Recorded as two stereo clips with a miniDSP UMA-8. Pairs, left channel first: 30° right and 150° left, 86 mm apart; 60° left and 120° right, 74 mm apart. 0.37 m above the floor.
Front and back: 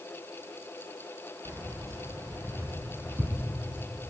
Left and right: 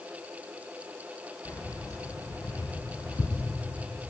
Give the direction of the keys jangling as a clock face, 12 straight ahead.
9 o'clock.